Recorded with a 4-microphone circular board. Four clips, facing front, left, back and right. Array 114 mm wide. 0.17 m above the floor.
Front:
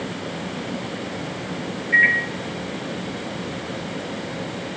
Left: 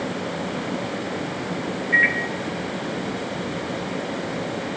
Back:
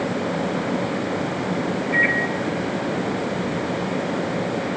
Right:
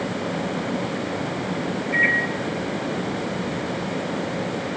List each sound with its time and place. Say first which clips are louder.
1.9 s a microwave: left 1 dB, front 4 dB; 40° left, 3 m